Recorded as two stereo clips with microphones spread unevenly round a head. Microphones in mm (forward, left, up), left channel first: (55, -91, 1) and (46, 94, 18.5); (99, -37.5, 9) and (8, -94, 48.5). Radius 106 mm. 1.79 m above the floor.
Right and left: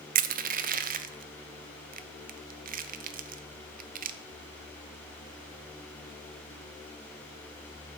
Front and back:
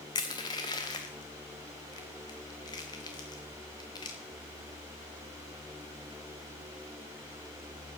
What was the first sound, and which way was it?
Crushing, 115° left.